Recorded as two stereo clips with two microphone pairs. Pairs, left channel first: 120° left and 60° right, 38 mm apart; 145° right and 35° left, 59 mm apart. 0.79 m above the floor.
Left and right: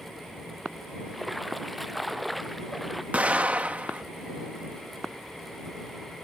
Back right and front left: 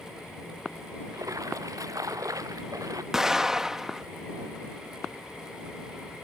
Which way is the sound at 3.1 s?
40° right.